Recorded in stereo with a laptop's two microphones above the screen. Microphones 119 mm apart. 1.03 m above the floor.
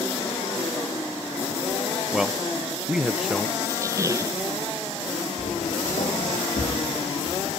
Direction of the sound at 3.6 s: 25° right (ahead or behind).